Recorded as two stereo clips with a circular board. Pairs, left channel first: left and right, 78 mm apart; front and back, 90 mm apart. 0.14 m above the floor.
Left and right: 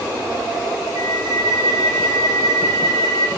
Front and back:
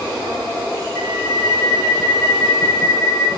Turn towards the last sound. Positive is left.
turn(degrees=-60)